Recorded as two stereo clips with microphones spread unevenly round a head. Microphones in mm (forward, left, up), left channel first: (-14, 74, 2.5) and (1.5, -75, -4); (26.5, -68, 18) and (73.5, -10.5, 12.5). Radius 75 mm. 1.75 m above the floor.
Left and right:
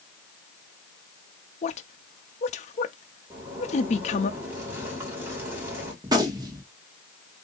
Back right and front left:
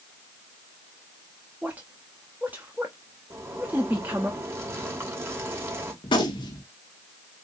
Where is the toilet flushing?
No toilet flushing in this recording.